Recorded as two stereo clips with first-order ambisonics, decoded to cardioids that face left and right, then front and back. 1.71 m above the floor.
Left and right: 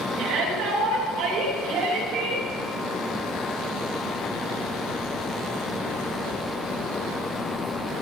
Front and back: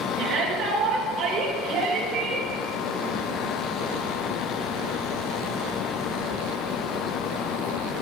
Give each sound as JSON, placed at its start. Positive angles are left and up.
{"t": 0.2, "sound": "a shout", "azimuth_deg": -125, "distance_m": 3.0}